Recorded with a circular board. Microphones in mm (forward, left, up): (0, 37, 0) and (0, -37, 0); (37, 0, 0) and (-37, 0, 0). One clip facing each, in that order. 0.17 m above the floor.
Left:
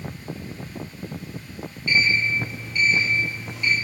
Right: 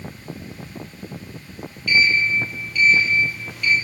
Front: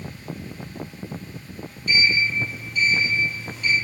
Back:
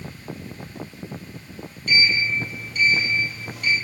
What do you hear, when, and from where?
1.9 s a sliding door: 155° left, 1.9 m